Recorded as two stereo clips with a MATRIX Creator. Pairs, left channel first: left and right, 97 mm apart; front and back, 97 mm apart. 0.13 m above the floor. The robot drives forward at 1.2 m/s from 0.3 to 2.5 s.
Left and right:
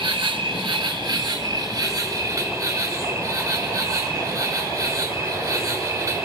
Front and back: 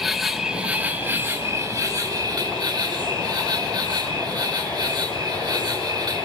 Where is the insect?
95° right, 2.5 m; by 6.3 s 145° right, 3.5 m.